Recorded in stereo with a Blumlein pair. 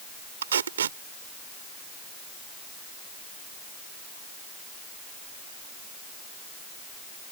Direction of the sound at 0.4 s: 65° right.